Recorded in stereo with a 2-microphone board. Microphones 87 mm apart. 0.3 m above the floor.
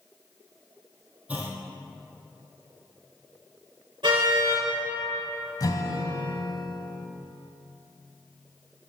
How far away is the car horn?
About 4 m.